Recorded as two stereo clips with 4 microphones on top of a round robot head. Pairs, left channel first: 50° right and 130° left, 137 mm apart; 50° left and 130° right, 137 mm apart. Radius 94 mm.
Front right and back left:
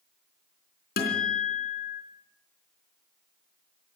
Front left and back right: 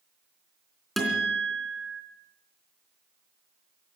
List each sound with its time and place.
1.0 s a guitar: 40° right, 3.5 m